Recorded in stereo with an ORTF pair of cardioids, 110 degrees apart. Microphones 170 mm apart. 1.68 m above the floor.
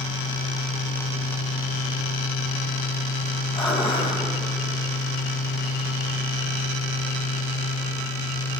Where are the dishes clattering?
30° left, 10 m.